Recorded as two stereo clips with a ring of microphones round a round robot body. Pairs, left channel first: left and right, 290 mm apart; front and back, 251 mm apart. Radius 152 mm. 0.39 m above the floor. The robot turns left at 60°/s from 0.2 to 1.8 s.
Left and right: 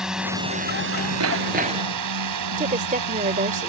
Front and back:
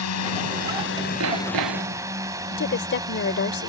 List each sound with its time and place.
0.0 s a drone: straight ahead; by 3.7 s 105° right
1.2 s hammering: 130° right; by 2.0 s 165° right
2.5 s a woman speaking: 35° right